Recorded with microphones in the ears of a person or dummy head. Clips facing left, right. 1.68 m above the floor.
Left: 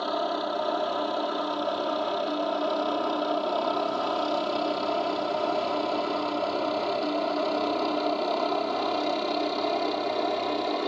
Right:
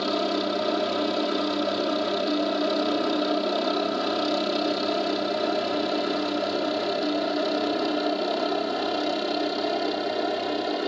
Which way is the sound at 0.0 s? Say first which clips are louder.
Right 3 dB; 35° right (ahead or behind).